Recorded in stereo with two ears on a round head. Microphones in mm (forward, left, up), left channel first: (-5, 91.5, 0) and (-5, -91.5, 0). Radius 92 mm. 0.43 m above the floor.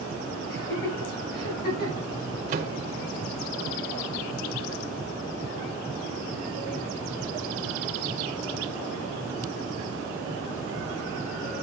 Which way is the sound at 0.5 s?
55° left (ahead or behind).